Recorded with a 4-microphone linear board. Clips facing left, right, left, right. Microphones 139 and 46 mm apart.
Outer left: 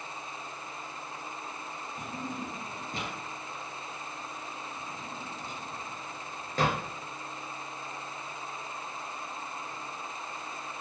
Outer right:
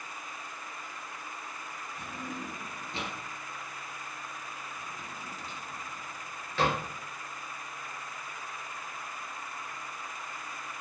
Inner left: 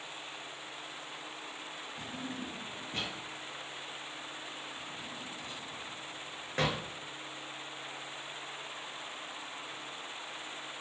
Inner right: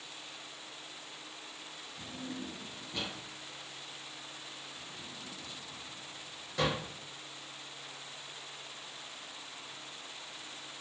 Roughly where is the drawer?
Left.